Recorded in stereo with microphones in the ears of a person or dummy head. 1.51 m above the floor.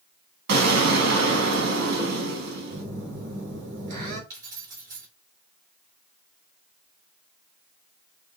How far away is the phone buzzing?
About 4 m.